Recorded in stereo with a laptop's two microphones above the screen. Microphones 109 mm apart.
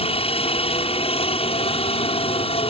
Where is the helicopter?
60° left (ahead or behind).